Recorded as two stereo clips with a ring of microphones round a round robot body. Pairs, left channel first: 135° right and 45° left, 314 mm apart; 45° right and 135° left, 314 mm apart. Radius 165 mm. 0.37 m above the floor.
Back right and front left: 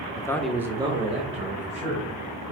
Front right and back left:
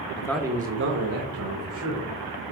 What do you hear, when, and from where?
0.2 s a man speaking: 80° right, 0.8 m; by 2.5 s 110° left, 3 m